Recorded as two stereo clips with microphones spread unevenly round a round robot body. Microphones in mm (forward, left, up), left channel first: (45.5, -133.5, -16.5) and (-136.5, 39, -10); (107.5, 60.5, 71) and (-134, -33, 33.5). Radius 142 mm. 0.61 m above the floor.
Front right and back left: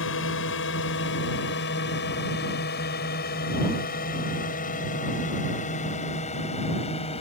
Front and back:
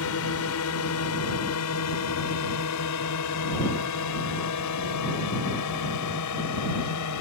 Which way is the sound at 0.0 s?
5° right.